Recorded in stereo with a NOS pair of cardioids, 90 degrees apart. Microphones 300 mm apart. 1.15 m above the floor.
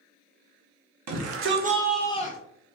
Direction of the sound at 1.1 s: 65° right.